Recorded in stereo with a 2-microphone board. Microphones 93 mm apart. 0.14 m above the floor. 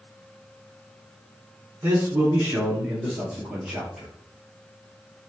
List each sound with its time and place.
1.8 s a man speaking: 20° right (ahead or behind), 1.2 m; by 4.1 s 10° right (ahead or behind), 3.5 m